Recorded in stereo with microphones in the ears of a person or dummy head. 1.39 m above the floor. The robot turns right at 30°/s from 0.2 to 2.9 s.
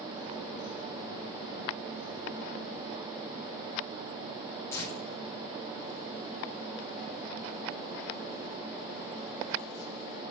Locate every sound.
4.7 s tearing paper: 20° left (ahead or behind), 6.5 m